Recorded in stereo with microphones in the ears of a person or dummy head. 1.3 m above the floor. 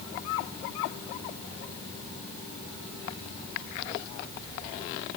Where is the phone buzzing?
I don't hear a phone buzzing.